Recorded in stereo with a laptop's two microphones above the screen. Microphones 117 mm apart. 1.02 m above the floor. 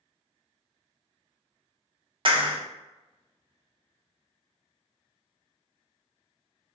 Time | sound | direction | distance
2.2 | a clap | 50° right (ahead or behind) | 0.6 m